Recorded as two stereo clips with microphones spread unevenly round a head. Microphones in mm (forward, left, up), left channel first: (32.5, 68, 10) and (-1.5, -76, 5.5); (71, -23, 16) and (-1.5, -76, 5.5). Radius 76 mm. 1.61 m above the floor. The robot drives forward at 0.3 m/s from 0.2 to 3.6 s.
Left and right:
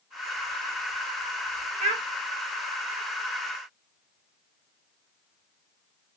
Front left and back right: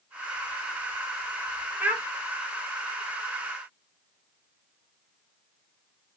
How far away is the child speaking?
About 0.7 m.